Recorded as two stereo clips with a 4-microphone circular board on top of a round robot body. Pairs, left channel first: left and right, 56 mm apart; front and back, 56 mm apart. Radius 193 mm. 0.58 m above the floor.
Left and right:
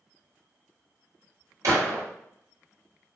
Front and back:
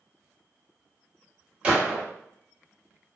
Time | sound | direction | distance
1.6 | a gunshot | 115° right | 1.5 m